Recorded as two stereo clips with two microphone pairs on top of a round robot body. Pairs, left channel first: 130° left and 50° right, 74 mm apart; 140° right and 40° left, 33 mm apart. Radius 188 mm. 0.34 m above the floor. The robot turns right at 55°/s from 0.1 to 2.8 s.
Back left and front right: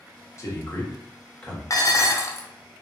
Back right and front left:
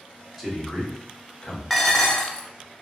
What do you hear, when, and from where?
0.4 s a man speaking: 130° left, 1.5 m; by 1.6 s 165° right, 1.5 m
1.7 s dishes clattering: 135° left, 0.8 m; by 2.5 s straight behind, 0.8 m